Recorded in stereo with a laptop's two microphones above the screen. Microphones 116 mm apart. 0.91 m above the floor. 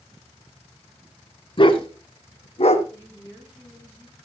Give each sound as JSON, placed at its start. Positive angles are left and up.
{"t": 1.6, "sound": "a dog barking", "side_deg": 45, "distance_m": 2.5}
{"t": 2.9, "sound": "a woman speaking", "side_deg": -15, "distance_m": 5.0}